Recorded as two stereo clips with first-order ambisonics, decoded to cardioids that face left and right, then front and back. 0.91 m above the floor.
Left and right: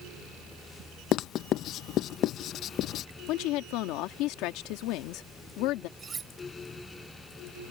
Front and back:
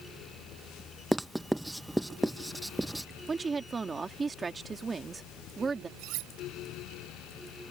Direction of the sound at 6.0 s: 160° right.